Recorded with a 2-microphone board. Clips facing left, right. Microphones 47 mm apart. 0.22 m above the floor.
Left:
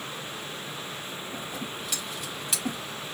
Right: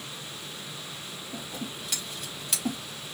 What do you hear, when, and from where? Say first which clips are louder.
1.3 s scissors: even; centre (ahead or behind), 4 m